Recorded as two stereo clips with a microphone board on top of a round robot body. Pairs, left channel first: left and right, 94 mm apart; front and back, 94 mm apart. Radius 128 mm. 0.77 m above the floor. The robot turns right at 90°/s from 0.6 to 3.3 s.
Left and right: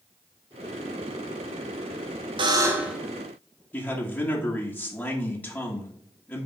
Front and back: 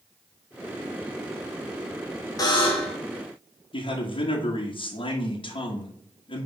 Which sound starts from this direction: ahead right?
A buzzer, at 2.4 s.